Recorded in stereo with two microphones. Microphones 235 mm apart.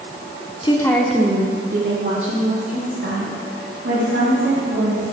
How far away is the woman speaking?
About 1.2 m.